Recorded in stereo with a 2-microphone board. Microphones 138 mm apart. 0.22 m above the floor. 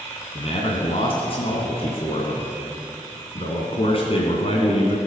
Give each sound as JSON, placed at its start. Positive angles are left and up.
{"t": 0.3, "sound": "a man speaking", "side_deg": 45, "distance_m": 2.0}